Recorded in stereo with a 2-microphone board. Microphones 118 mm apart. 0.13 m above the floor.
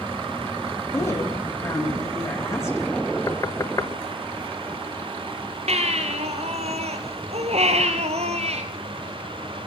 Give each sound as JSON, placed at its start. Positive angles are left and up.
{"t": 0.9, "sound": "a woman speaking", "side_deg": 20, "distance_m": 7.5}
{"t": 3.3, "sound": "knocking", "side_deg": 30, "distance_m": 1.4}
{"t": 5.7, "sound": "a baby crying", "side_deg": -65, "distance_m": 2.5}